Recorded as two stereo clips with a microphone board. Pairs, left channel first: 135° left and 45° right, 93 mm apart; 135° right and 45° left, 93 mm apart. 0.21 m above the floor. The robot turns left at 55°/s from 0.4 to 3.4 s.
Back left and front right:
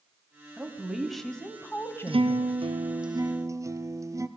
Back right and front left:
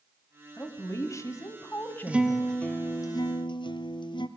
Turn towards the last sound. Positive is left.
turn(degrees=-100)